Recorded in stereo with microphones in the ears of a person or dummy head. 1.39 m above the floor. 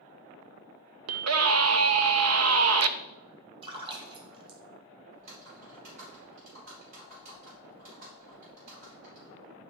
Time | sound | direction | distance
1.1 | a scream | 80° right | 0.9 m
3.6 | a splash | 30° right (ahead or behind) | 1.8 m
5.1 | typing on a keyboard | 45° right (ahead or behind) | 4.5 m